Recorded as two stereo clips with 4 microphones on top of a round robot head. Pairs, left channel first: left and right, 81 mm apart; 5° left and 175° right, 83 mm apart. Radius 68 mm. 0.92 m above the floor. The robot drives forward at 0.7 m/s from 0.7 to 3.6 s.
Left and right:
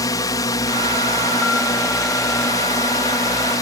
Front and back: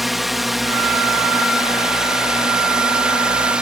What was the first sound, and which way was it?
A drone, 95° left.